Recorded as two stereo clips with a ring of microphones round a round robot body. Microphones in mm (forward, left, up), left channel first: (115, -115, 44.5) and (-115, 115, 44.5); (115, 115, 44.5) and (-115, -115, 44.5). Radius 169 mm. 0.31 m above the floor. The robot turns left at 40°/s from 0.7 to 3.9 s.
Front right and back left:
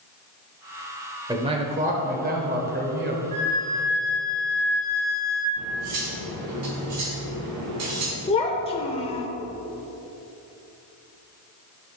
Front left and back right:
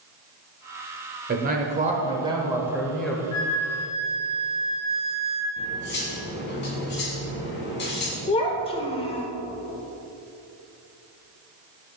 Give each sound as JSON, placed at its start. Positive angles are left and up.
{"t": 1.3, "sound": "a man speaking", "azimuth_deg": -160, "distance_m": 1.1}
{"t": 3.3, "sound": "a flute", "azimuth_deg": 70, "distance_m": 2.0}
{"t": 5.6, "sound": "cutlery clinking", "azimuth_deg": 100, "distance_m": 1.8}
{"t": 8.3, "sound": "a child speaking", "azimuth_deg": 0, "distance_m": 0.7}